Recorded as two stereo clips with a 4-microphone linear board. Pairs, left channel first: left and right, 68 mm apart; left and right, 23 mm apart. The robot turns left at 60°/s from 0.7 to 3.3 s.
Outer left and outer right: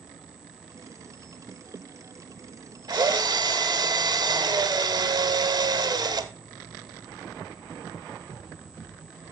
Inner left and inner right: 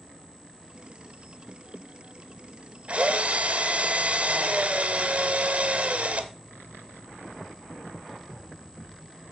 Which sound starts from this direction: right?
A drill, at 2.9 s.